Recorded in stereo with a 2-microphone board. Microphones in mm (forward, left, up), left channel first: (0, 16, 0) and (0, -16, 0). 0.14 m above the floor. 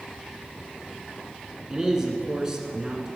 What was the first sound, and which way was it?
A man speaking, 20° right (ahead or behind).